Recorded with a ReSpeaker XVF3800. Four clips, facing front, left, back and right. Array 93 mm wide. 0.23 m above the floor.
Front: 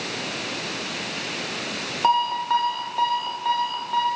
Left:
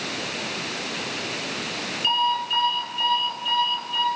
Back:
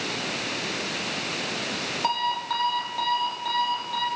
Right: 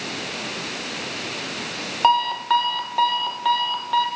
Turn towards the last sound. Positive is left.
turn(degrees=-70)